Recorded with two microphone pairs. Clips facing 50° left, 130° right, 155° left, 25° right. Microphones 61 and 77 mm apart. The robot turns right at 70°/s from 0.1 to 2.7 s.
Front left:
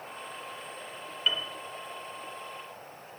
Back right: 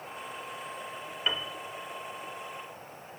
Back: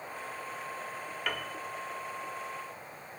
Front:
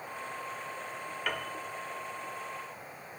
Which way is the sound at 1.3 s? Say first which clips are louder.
Front left 1 dB, even; 110° right.